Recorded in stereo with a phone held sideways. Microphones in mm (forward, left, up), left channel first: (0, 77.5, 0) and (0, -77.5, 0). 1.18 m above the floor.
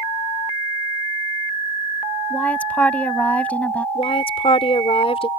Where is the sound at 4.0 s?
40° left (ahead or behind).